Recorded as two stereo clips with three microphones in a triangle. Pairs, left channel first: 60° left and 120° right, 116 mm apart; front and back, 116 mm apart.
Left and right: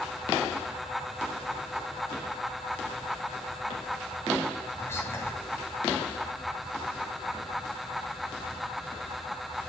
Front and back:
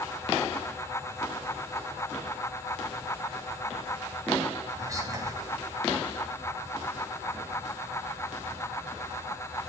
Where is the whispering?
125° left, 2.5 m.